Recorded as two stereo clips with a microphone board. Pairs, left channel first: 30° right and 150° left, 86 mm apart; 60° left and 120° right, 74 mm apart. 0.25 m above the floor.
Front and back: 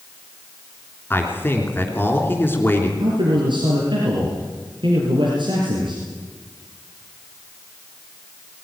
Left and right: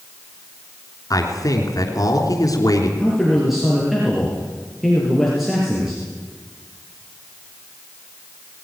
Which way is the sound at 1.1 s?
35° left.